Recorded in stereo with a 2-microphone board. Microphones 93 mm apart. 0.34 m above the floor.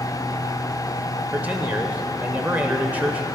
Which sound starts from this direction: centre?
A man speaking, at 1.3 s.